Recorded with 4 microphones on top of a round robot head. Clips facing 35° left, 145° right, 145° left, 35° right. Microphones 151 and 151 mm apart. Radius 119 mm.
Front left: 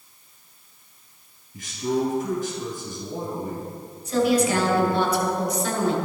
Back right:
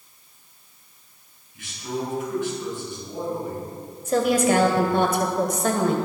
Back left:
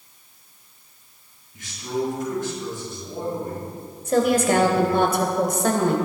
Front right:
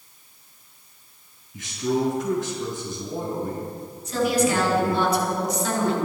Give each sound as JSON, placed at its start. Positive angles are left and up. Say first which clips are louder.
{"t": 1.5, "sound": "a man speaking", "louder": "front left 6 dB, front right 3 dB", "azimuth_deg": -15, "distance_m": 5.0}
{"t": 4.0, "sound": "a woman speaking", "louder": "back right 1 dB, back left 3 dB", "azimuth_deg": 180, "distance_m": 2.5}